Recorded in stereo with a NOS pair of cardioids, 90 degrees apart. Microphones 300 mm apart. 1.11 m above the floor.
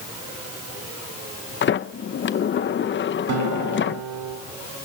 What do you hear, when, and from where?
1.6 s a sliding door: 40° left, 0.8 m
3.3 s a guitar: 70° right, 5 m